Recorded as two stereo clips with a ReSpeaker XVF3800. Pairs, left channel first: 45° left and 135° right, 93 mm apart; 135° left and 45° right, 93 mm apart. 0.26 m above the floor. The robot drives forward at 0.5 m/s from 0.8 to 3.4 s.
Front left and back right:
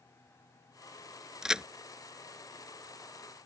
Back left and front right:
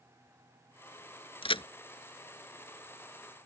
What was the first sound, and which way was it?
A crack, 140° left.